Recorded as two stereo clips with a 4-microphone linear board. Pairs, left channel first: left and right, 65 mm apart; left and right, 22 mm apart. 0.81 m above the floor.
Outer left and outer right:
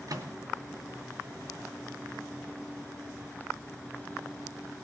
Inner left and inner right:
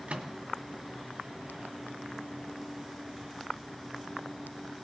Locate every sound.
0.1 s a microwave: 65° right (ahead or behind), 1.9 m